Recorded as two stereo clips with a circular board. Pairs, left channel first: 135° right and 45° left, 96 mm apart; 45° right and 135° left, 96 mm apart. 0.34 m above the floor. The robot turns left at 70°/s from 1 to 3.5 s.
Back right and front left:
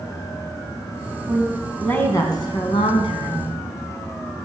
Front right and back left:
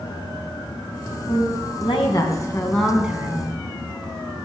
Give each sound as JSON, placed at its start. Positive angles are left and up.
{"t": 1.3, "sound": "a woman speaking", "azimuth_deg": -20, "distance_m": 3.0}